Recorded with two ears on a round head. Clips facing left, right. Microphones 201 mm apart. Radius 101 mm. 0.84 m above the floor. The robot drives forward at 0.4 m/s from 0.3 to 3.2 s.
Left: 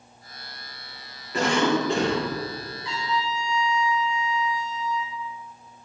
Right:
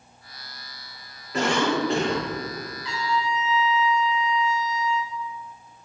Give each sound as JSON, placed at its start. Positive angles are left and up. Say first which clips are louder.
{"t": 1.3, "sound": "a cough", "louder": "left 1 dB", "side_deg": 0, "distance_m": 2.5}
{"t": 2.8, "sound": "a trumpet", "louder": "right 2 dB", "side_deg": -20, "distance_m": 3.0}